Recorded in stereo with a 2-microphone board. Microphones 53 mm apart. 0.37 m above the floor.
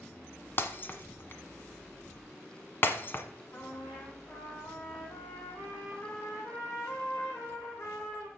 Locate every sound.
0.6 s breaking glass: 40° left (ahead or behind), 1.0 m
3.5 s a trumpet: 75° left (ahead or behind), 5 m